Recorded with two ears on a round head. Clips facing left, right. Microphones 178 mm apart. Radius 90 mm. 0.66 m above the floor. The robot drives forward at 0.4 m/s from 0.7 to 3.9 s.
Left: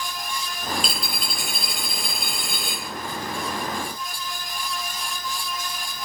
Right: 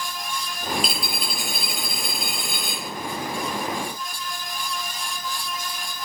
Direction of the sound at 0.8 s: 5° right (ahead or behind).